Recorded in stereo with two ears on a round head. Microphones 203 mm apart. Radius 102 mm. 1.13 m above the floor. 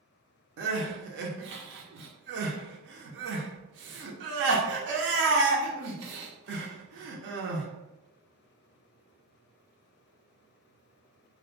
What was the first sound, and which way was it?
Crying, 55° right (ahead or behind).